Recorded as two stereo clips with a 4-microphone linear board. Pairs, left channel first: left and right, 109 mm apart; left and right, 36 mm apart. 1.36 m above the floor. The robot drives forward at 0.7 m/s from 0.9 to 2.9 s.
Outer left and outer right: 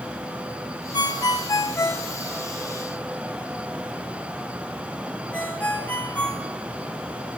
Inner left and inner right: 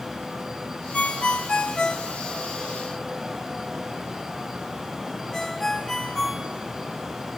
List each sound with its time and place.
0.9 s a ringtone: 40° left (ahead or behind), 0.6 m; by 6.5 s 15° left (ahead or behind), 1.6 m